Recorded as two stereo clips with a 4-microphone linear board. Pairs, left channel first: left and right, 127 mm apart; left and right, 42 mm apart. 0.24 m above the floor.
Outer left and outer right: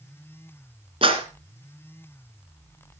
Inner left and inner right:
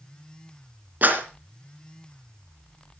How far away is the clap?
About 2.5 m.